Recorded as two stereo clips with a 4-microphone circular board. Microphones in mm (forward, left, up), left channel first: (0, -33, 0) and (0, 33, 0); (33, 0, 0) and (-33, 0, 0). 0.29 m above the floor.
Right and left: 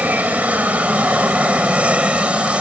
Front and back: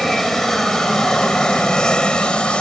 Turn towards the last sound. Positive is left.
turn(degrees=45)